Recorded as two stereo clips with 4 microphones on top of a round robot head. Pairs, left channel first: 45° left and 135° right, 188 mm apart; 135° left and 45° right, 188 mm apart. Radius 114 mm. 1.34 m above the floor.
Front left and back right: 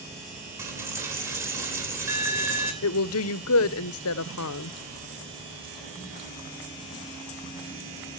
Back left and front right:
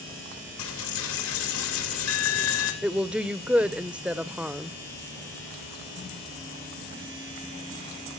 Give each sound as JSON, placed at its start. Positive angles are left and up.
{"t": 0.6, "sound": "a dropped coin", "azimuth_deg": 145, "distance_m": 2.5}
{"t": 2.8, "sound": "a woman speaking", "azimuth_deg": 40, "distance_m": 0.5}